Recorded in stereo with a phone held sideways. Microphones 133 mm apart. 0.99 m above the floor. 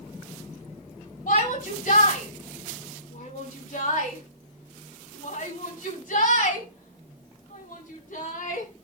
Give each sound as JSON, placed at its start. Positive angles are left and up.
{"t": 1.3, "sound": "a shout", "side_deg": 85, "distance_m": 5.0}